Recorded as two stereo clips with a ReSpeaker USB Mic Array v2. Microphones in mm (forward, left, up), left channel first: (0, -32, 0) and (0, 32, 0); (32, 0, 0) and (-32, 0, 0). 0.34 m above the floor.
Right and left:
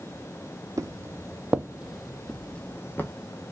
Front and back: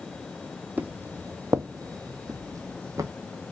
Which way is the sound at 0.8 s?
115° left.